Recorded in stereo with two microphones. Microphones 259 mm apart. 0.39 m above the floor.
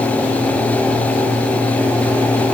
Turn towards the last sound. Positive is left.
No sound to turn to.